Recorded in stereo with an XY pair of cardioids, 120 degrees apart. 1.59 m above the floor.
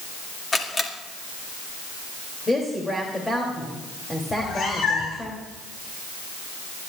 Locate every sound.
0.5 s a camera shutter: 25° left, 2.5 m
2.5 s a woman speaking: 15° left, 3 m
4.3 s a cat meowing: 55° left, 4 m